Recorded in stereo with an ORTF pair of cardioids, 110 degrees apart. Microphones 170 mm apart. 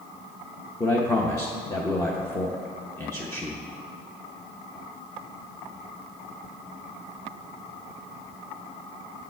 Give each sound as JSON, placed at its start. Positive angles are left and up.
{"t": 0.8, "sound": "a man speaking", "azimuth_deg": 15, "distance_m": 0.8}